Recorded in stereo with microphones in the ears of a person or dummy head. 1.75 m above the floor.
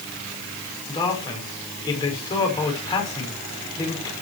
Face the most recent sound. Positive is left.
turn(degrees=15)  # may be behind; listen again after turning